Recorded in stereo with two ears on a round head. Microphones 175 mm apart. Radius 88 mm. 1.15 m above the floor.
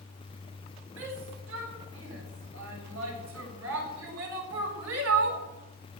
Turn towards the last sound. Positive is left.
turn(degrees=-80)